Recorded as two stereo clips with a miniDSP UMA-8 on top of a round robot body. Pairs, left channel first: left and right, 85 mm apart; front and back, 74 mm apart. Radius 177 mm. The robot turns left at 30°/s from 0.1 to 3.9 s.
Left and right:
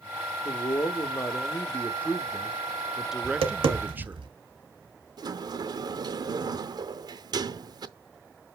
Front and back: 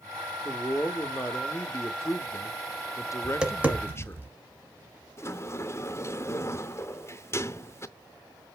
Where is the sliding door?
55° right, 0.7 m.